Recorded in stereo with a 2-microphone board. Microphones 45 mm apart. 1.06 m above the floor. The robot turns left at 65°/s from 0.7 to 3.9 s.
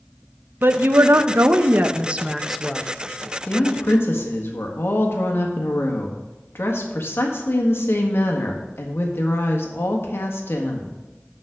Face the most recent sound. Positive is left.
turn(degrees=70)  # may be behind; listen again after turning